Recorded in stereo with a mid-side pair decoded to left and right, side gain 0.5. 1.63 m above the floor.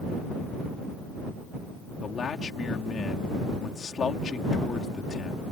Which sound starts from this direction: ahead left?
A man speaking, at 2.0 s.